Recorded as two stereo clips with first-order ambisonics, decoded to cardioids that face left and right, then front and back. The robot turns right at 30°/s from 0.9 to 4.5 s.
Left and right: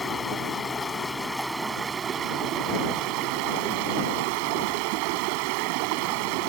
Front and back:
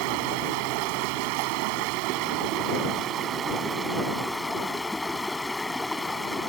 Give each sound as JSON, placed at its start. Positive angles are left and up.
{"t": 0.0, "sound": "running water", "azimuth_deg": 165}